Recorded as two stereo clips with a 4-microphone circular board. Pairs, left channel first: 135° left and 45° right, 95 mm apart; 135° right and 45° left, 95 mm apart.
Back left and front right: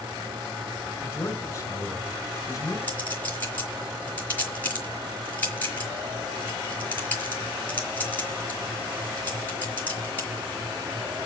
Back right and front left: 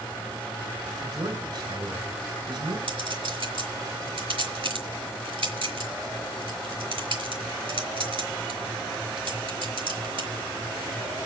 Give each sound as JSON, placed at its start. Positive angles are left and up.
{"t": 1.0, "sound": "a man speaking", "azimuth_deg": 75, "distance_m": 4.5}
{"t": 2.9, "sound": "a clink", "azimuth_deg": 65, "distance_m": 5.0}